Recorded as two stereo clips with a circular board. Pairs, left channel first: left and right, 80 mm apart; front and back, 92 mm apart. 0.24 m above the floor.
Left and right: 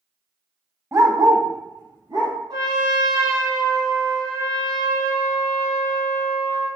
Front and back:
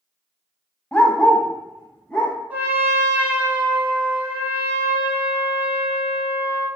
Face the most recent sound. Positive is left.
turn(degrees=-110)